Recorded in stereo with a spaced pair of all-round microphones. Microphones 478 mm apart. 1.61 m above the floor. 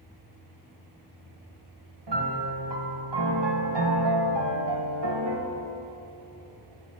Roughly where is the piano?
Right.